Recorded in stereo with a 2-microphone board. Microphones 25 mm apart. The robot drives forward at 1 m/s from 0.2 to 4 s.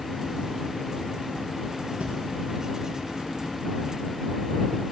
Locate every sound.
2.0 s breathing: 75° right (ahead or behind), 3.5 m; by 2.1 s 70° right (ahead or behind), 3.5 m